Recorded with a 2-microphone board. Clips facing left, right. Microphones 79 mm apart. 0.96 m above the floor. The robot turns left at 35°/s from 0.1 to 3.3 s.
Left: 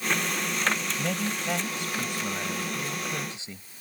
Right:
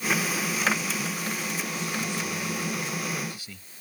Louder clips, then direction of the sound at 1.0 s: Left 2 dB; 110° left.